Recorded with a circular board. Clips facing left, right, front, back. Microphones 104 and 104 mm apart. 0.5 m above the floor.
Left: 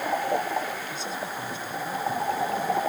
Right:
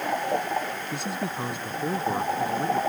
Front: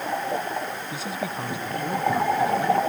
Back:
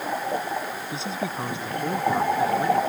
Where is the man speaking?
115° right.